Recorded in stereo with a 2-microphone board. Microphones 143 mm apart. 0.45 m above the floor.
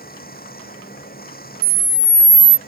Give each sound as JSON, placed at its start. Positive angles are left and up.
{"t": 0.0, "sound": "running water", "side_deg": 90}
{"t": 1.6, "sound": "a camera shutter", "side_deg": -45}